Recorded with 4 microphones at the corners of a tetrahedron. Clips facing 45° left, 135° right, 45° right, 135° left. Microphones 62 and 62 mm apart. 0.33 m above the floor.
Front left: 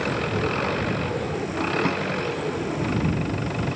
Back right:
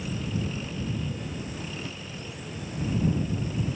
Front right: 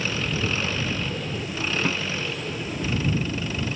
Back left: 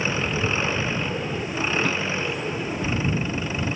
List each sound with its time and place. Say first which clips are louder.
0.0 s an engine running: front left 8 dB, back left 2 dB; 70° left
1.9 s a snare drum: front left 15 dB, back left 1 dB; 40° left